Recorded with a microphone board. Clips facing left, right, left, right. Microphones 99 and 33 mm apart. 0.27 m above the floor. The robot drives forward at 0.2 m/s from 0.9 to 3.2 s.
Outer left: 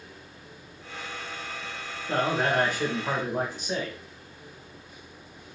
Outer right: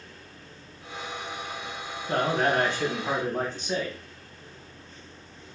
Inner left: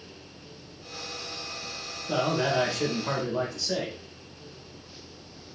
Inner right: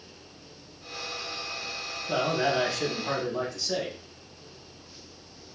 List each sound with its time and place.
2.1 s a man speaking: 10° left (ahead or behind), 1.3 m; by 4.0 s 5° left (ahead or behind), 1.4 m